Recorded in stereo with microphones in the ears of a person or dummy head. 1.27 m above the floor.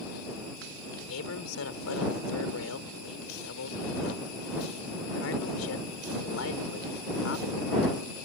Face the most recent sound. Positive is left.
turn(degrees=85)